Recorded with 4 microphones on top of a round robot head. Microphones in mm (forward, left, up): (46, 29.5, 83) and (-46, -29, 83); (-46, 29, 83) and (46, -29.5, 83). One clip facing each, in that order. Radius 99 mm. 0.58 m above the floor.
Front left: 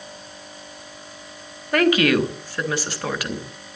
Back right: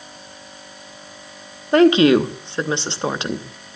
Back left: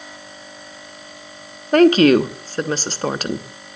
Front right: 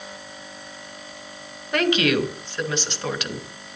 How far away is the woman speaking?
About 1.4 m.